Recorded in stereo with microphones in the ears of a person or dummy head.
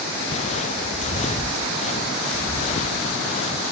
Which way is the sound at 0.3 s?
40° left (ahead or behind).